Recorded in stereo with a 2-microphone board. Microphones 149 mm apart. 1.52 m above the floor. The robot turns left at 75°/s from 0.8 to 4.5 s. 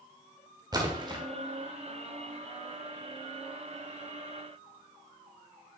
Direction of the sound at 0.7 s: 30° right (ahead or behind).